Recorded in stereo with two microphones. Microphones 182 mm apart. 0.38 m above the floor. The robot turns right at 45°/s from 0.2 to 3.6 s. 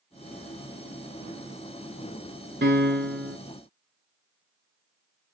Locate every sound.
2.6 s a piano: 115° right, 0.8 m; by 3.4 s 80° right, 0.8 m